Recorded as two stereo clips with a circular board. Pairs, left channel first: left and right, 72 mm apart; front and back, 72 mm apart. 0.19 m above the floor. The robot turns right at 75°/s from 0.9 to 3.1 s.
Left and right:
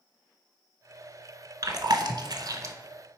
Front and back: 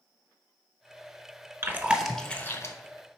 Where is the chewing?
125° right, 0.5 m; by 2.8 s 45° right, 0.5 m.